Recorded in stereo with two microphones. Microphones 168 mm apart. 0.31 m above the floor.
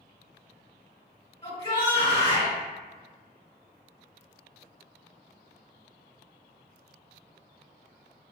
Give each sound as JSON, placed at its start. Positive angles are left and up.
{"t": 1.4, "sound": "a shout", "side_deg": 30, "distance_m": 1.9}